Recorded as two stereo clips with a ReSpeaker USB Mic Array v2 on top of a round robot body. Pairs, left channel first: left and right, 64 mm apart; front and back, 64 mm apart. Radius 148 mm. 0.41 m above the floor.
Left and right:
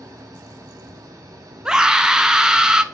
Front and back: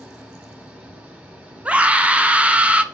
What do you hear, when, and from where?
0.0 s an engine running: 115° right, 1.4 m
1.6 s a scream: 150° right, 0.8 m